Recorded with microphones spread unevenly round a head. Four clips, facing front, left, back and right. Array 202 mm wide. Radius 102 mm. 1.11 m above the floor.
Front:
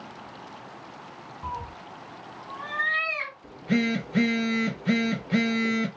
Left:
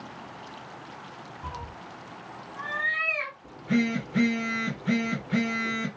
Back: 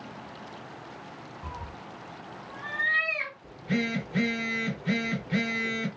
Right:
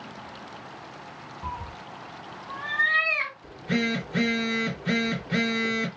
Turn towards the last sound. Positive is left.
turn(degrees=-35)